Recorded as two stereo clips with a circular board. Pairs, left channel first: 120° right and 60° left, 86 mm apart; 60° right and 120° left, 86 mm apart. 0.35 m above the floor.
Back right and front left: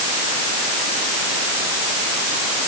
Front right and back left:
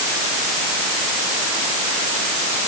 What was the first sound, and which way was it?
Only background noise.